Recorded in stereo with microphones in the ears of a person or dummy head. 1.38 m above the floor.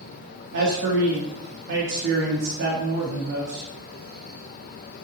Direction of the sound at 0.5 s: 60° right (ahead or behind).